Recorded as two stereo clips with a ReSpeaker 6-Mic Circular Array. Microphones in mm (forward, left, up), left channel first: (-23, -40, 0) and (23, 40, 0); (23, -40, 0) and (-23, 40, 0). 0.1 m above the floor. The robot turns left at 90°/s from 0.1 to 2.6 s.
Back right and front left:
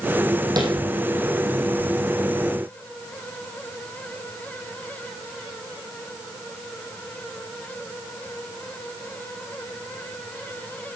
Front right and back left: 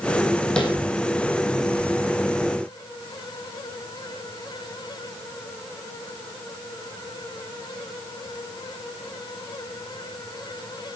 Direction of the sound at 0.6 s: 20° left.